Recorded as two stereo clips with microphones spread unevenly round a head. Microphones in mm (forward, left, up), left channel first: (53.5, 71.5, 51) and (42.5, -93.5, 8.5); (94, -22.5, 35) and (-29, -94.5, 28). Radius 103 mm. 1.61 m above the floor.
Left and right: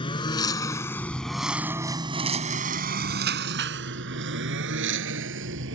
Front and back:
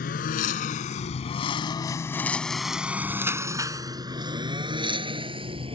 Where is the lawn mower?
40° left; by 5.8 s 100° right.